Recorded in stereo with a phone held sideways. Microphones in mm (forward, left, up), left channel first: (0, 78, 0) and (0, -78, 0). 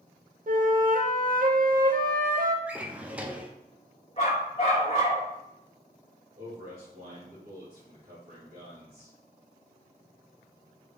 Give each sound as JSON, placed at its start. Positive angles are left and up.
{"t": 0.5, "sound": "a flute", "side_deg": -60, "distance_m": 0.6}
{"t": 2.7, "sound": "a drawer", "side_deg": -10, "distance_m": 0.8}
{"t": 4.2, "sound": "a dog barking", "side_deg": 40, "distance_m": 3.5}
{"t": 6.4, "sound": "a man speaking", "side_deg": -65, "distance_m": 3.0}